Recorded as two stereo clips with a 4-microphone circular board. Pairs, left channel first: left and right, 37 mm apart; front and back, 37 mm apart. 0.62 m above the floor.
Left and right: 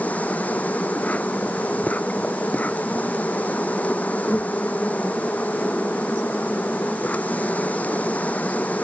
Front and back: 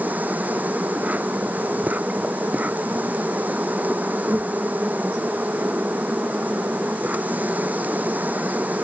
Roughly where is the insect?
Behind left.